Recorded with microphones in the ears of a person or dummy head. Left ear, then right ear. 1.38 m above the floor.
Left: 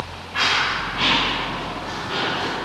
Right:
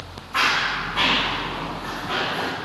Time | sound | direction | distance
0.3 | running footsteps | 40° right (ahead or behind) | 6 m